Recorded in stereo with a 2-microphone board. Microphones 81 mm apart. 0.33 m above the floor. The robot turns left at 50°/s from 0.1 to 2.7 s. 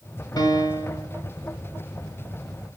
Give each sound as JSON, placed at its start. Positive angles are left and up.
{"t": 0.4, "sound": "a piano", "azimuth_deg": 95, "distance_m": 1.4}